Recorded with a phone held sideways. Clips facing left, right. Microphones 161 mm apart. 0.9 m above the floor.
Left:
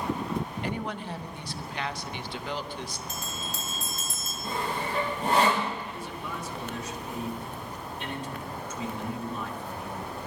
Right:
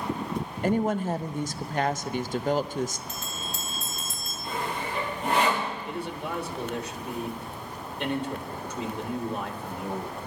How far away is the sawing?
About 6 m.